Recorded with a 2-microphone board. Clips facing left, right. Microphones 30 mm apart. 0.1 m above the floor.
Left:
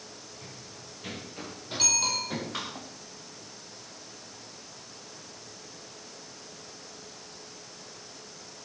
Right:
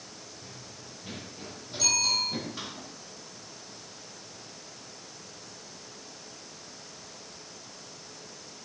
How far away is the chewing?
I don't hear chewing.